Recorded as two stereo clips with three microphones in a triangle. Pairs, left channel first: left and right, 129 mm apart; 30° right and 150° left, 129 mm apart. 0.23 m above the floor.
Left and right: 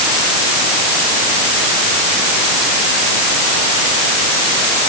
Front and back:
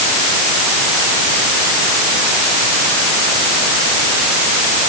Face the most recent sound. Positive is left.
No sound to turn to.